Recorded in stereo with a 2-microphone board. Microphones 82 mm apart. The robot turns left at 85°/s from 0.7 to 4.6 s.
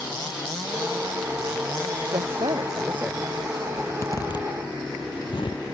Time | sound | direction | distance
2.1 | a woman speaking | 85° right | ?
3.8 | a zipper | 10° left (ahead or behind) | ?